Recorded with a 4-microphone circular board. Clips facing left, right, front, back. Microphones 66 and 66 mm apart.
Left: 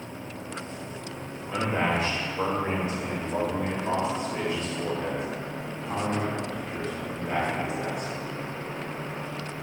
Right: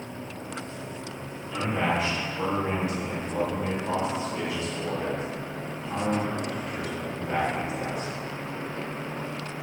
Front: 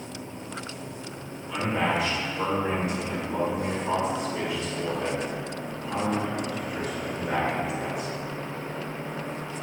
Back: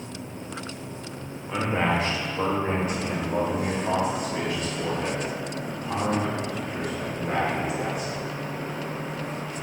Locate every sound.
1.5 s a man speaking: 130° left, 1.7 m; by 8.1 s 155° left, 5.5 m